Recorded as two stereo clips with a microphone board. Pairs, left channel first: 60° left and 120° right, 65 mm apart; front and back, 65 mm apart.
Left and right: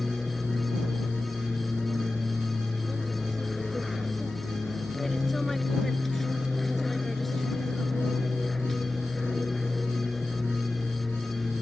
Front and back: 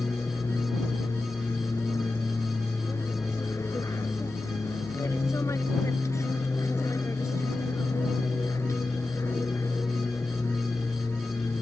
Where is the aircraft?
25° right.